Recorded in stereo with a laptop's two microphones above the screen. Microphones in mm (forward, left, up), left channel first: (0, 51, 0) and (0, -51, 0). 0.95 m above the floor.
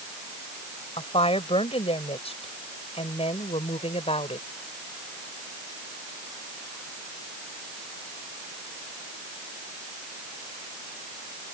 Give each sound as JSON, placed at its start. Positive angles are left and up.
{"t": 1.0, "sound": "a woman speaking", "side_deg": 75}